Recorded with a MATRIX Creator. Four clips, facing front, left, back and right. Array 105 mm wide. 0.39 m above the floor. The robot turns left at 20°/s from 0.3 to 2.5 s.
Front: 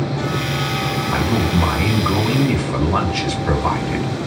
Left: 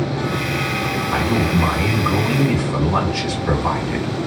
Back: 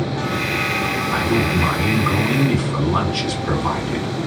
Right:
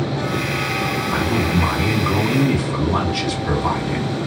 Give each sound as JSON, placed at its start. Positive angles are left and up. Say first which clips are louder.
{"t": 1.1, "sound": "a man speaking", "louder": "left 2 dB, even", "azimuth_deg": 45, "distance_m": 1.2}